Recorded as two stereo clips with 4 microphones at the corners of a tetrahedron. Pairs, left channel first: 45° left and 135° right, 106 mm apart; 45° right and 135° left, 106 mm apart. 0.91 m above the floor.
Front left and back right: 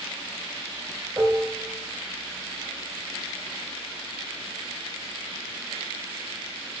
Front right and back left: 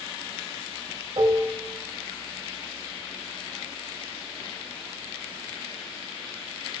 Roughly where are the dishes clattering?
Behind.